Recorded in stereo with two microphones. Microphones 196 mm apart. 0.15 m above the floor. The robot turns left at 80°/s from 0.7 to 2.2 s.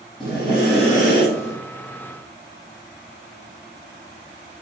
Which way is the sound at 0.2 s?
155° left.